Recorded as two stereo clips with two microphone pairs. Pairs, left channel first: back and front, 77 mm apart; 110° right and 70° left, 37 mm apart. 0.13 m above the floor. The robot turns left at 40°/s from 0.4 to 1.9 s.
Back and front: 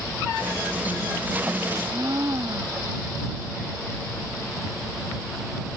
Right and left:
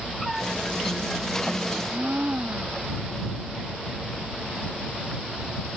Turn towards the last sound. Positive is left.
turn(degrees=35)